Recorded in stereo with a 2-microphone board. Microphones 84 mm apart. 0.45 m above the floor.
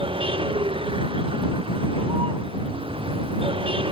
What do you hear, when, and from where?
0.0 s a vehicle: 80° right; by 3.9 s 85° right